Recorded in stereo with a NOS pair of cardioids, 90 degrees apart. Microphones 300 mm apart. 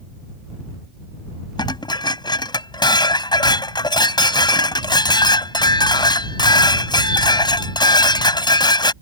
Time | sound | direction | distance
1.6 | dishes clattering | 15° left | ?